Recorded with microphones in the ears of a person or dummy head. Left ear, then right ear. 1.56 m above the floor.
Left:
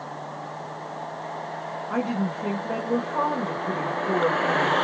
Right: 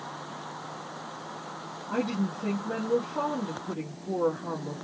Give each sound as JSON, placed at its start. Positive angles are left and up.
{"t": 1.9, "sound": "a woman speaking", "side_deg": 65, "distance_m": 1.8}